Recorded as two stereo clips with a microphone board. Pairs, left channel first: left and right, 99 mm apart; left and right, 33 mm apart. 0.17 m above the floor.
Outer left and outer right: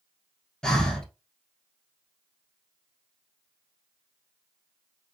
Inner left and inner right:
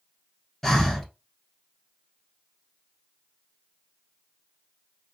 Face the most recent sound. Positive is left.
turn(degrees=10)  # may be behind; listen again after turning